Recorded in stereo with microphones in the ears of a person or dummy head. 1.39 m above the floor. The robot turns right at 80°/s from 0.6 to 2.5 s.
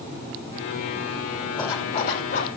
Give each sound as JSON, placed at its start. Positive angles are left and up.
{"t": 1.6, "sound": "a zipper", "azimuth_deg": 30, "distance_m": 5.0}